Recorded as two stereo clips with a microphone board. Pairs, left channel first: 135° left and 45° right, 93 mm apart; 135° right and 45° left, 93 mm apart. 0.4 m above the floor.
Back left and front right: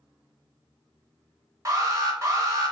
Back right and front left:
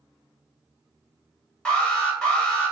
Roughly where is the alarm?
Ahead right.